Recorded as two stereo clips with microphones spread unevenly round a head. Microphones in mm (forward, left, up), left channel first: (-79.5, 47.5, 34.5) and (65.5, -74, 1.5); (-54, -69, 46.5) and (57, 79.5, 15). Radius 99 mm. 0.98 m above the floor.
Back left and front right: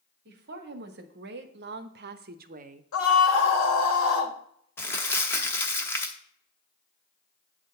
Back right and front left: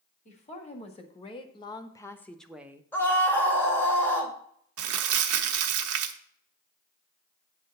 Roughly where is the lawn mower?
I don't hear a lawn mower.